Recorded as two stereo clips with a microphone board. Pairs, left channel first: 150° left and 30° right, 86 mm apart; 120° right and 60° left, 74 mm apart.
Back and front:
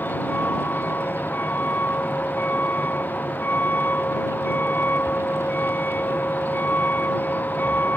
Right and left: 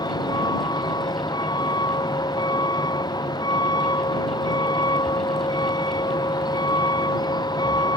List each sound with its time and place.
0.0 s a vehicle: 140° right